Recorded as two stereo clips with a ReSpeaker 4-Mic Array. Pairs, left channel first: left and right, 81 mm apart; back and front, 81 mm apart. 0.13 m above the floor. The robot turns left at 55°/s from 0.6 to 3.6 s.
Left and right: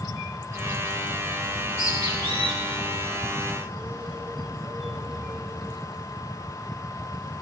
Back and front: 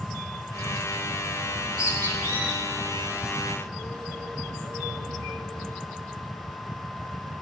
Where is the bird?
15° right, 2 m; by 5.8 s 135° right, 2 m.